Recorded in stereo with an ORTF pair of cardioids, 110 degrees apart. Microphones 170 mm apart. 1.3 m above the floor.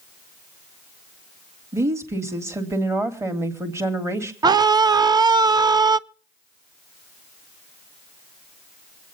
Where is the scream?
25° right, 0.7 m.